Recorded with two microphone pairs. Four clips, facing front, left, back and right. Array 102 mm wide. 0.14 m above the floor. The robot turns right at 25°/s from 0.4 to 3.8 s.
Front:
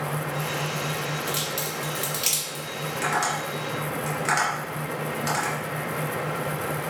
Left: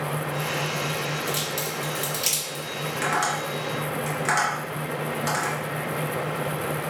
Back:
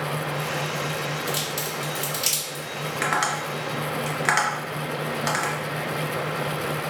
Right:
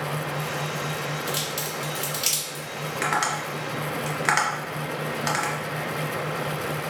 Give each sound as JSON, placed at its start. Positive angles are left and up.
{"t": 1.3, "sound": "a crack", "azimuth_deg": -70, "distance_m": 1.6}
{"t": 3.0, "sound": "tapping", "azimuth_deg": -155, "distance_m": 1.1}